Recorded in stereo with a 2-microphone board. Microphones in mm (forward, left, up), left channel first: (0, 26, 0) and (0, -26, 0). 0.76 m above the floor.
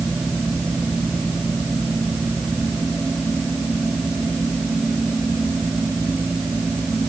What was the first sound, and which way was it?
Only background noise.